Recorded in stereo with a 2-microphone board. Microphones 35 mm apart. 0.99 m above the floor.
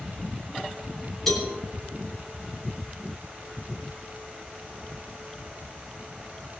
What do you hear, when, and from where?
1.3 s a cowbell: 10° left (ahead or behind), 9.5 m